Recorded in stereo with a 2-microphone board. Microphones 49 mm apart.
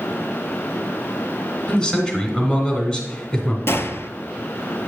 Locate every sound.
1.7 s a man speaking: 15° left (ahead or behind), 1.5 m
3.7 s a gunshot: 55° left (ahead or behind), 0.6 m